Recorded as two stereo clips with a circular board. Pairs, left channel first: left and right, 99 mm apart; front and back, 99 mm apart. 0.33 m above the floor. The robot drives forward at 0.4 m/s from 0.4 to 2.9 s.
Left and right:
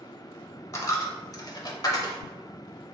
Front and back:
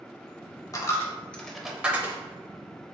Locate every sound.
0.7 s a dropped coin: 45° left, 0.6 m; by 2.2 s 125° left, 0.6 m